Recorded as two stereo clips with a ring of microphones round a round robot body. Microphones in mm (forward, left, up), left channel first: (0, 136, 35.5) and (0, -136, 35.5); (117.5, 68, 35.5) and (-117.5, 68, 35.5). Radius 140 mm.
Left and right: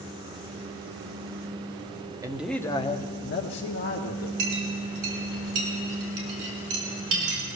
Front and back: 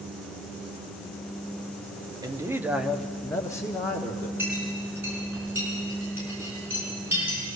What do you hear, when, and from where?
2.2 s a man speaking: 145° right, 0.8 m; by 4.3 s 70° left, 1.6 m
4.4 s a clink: 100° right, 5 m